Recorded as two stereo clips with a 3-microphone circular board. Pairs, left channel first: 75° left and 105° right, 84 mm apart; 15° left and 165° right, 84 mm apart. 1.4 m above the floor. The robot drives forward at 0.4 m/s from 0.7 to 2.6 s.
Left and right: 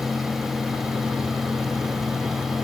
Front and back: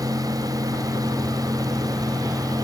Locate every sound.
Only background noise.